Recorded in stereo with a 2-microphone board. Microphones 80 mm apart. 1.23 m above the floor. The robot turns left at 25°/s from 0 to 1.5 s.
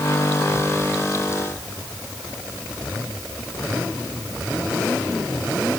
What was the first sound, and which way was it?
Only background noise.